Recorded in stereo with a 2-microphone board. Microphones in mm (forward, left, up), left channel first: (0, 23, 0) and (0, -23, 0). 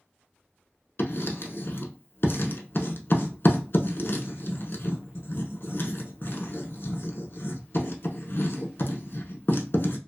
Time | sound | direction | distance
1.0 | writing | 60° left (ahead or behind) | 0.5 m